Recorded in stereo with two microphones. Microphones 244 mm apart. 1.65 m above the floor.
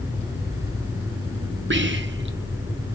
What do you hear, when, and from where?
1.7 s whispering: 50° right (ahead or behind), 0.8 m